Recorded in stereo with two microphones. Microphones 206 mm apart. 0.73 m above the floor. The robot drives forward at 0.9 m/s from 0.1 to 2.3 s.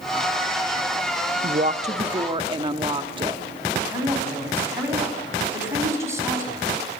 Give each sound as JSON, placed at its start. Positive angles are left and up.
{"t": 1.4, "sound": "a woman speaking", "side_deg": -40, "distance_m": 0.7}
{"t": 3.9, "sound": "a woman speaking", "side_deg": -15, "distance_m": 5.5}